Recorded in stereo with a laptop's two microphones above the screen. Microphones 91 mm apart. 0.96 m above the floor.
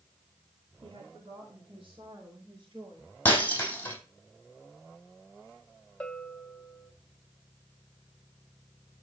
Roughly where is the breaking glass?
Left.